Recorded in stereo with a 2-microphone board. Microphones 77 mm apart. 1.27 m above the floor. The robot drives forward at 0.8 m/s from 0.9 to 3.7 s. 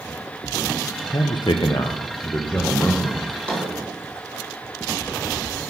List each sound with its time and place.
1.1 s a man speaking: 55° left (ahead or behind), 0.6 m; by 3.1 s 20° left (ahead or behind), 1.4 m
3.2 s a drawer: 15° left (ahead or behind), 2.5 m